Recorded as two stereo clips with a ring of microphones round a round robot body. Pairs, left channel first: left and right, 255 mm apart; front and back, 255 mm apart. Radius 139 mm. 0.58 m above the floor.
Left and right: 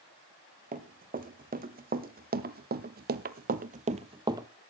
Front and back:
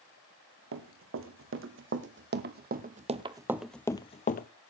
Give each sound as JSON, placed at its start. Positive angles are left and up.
{"t": 0.7, "sound": "running footsteps", "azimuth_deg": -150, "distance_m": 1.8}